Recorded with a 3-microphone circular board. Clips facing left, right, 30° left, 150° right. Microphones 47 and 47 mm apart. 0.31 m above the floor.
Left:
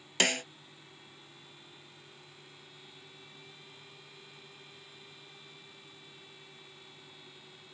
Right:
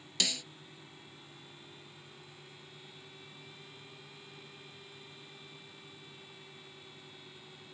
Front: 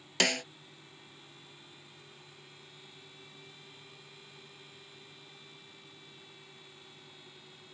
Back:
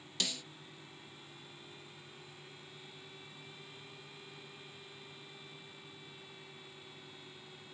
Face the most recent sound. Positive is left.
turn(degrees=50)